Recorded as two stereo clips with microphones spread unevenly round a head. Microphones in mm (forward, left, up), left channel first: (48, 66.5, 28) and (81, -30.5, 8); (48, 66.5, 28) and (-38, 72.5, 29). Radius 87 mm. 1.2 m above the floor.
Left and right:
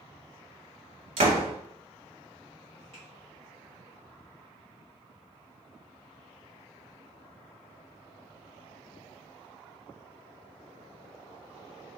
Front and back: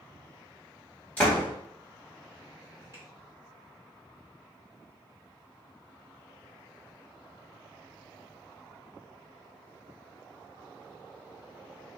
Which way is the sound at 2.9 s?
120° right.